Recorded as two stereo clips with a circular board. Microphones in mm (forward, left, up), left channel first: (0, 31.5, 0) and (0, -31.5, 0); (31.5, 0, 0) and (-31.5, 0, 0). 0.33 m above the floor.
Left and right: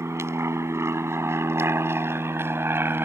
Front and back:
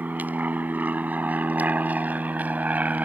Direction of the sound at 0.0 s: 120° right.